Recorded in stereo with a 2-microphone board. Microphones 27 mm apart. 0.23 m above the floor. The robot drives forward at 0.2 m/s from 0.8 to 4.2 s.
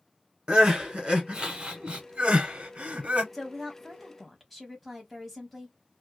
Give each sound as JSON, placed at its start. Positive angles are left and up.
{"t": 0.5, "sound": "crying", "side_deg": -30, "distance_m": 1.2}
{"t": 3.3, "sound": "a woman speaking", "side_deg": 5, "distance_m": 1.0}